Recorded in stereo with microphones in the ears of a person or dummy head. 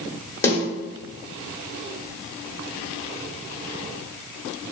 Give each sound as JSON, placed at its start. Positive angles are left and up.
{"t": 0.4, "sound": "a snare drum", "side_deg": 15, "distance_m": 1.7}